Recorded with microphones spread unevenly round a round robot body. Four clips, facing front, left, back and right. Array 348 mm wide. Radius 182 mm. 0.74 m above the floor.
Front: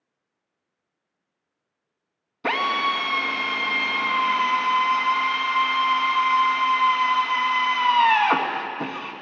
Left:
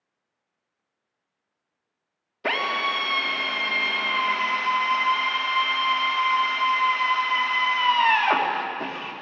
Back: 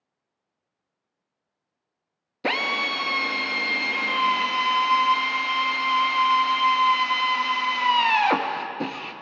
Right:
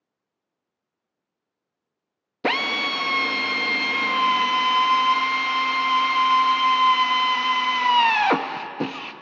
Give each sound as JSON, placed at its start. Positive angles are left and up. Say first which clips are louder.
{"t": 2.4, "sound": "a drill", "louder": "right 1 dB, front 4 dB", "azimuth_deg": -100, "distance_m": 0.8}